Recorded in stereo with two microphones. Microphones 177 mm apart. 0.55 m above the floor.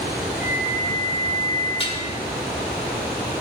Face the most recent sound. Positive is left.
turn(degrees=30)  # may be behind; listen again after turning